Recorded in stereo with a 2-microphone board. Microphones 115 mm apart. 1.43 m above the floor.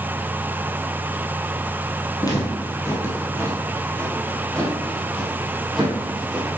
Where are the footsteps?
35° left (ahead or behind), 2 m; by 6.6 s 10° right (ahead or behind), 3 m.